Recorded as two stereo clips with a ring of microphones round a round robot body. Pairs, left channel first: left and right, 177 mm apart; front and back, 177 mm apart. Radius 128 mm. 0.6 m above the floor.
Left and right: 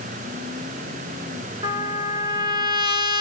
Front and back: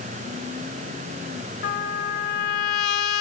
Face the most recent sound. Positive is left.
turn(degrees=-25)